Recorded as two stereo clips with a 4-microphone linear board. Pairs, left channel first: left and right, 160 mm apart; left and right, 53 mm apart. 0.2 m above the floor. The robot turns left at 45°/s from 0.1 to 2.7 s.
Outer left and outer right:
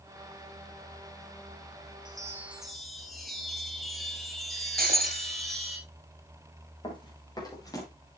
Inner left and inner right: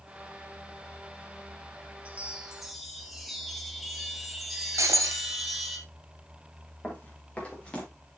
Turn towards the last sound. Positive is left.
turn(degrees=20)  # may be behind; listen again after turning